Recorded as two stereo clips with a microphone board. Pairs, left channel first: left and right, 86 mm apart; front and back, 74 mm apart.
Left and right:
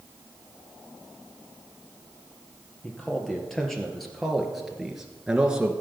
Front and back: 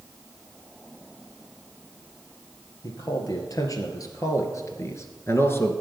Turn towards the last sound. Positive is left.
turn(degrees=-20)